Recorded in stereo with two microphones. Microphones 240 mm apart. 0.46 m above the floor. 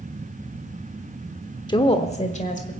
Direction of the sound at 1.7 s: 20° left (ahead or behind).